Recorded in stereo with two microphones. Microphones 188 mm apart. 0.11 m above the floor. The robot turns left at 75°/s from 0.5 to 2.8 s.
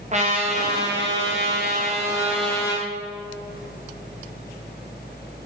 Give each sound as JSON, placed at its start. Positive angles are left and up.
{"t": 0.1, "sound": "a trumpet", "azimuth_deg": -40, "distance_m": 2.5}